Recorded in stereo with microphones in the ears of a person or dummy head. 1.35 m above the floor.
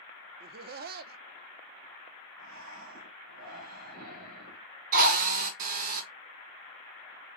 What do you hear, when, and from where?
0.4 s laughter: 45° right (ahead or behind), 0.5 m
2.4 s breathing: 50° right (ahead or behind), 3.5 m
4.9 s a drill: 50° right (ahead or behind), 1.7 m